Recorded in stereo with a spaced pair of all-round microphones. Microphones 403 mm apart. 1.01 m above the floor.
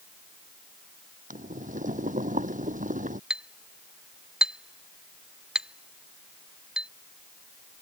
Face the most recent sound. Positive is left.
turn(degrees=0)  # may be behind; listen again after turning